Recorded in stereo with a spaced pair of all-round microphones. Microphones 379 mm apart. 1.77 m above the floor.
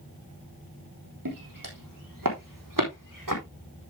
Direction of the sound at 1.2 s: 60° right (ahead or behind).